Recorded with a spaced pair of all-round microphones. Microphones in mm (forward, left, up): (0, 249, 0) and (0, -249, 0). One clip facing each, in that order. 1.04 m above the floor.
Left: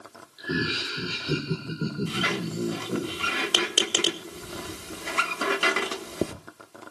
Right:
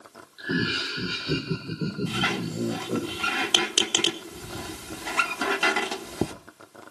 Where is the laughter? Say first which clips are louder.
Right 1 dB; 5° right (ahead or behind), 2.5 m; by 3.1 s 10° left (ahead or behind), 4 m.